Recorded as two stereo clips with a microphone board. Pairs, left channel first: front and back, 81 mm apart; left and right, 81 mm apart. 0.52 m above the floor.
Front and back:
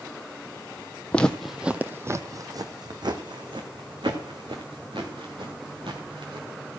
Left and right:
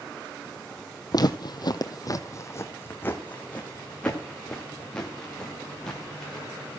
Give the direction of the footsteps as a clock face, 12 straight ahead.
10 o'clock.